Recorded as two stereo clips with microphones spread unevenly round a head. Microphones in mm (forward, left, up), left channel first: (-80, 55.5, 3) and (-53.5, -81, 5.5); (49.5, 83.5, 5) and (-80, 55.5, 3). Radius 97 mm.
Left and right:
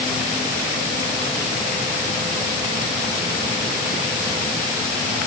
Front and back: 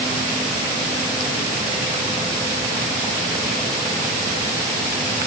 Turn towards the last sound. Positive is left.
No sound to turn to.